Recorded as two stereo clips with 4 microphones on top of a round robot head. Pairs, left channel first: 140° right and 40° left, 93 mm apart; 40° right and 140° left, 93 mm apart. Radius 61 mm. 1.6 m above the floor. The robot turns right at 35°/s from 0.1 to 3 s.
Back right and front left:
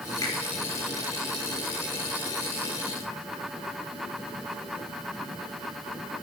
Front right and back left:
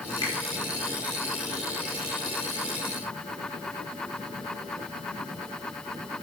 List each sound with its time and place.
0.2 s a finger snap: 90° right, 4 m; by 0.3 s 85° right, 4 m